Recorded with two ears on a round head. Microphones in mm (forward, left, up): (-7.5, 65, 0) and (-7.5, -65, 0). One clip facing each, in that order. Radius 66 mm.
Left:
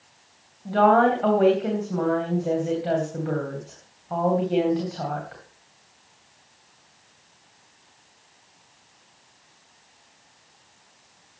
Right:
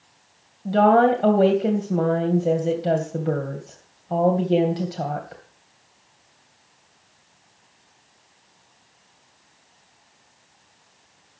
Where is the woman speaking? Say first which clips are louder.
Right 2 dB; 35° right (ahead or behind), 2.5 m.